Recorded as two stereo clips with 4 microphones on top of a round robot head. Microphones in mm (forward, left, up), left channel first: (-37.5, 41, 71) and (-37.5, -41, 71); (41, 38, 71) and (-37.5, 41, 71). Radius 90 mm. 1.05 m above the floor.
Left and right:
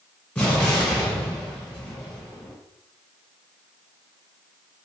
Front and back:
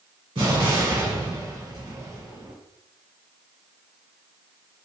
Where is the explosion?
165° left, 1.6 m.